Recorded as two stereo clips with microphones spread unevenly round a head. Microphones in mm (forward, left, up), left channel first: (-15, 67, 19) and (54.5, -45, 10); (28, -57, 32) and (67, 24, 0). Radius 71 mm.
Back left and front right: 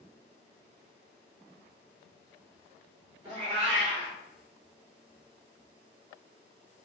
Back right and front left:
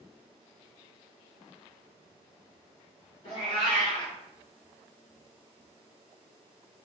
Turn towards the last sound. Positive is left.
turn(degrees=-115)